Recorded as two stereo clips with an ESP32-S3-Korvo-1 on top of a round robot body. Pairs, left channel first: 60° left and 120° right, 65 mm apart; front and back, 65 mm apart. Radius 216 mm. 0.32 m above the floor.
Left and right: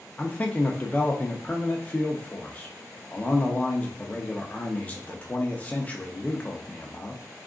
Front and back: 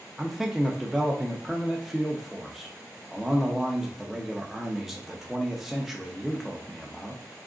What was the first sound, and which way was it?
A man speaking, 95° left.